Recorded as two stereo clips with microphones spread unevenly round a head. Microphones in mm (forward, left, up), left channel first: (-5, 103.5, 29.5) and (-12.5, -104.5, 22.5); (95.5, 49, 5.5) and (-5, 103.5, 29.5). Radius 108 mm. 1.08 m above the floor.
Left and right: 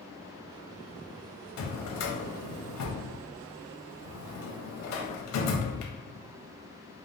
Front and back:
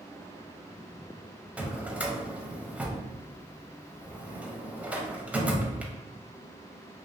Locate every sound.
1.6 s a drawer: 75° left, 0.5 m